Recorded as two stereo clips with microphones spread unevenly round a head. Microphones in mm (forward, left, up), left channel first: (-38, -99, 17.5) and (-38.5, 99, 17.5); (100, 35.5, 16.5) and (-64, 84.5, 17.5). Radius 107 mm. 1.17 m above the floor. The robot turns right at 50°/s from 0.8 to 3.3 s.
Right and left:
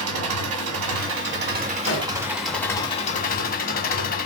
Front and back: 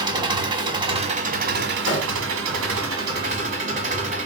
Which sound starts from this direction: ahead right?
An explosion, at 1.9 s.